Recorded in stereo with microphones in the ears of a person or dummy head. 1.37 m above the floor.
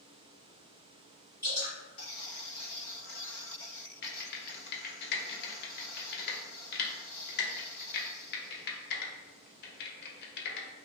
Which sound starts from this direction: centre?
Dripping, at 1.4 s.